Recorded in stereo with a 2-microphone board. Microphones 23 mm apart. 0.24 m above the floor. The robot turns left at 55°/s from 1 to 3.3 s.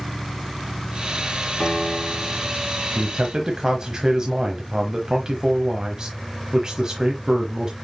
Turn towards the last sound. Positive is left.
turn(degrees=-35)  # may be behind; listen again after turning